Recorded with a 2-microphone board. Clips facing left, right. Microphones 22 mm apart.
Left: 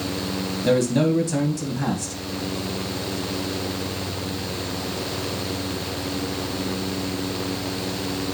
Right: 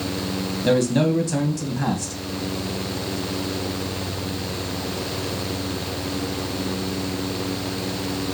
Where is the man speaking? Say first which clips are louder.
Even; 15° right (ahead or behind), 2.5 m.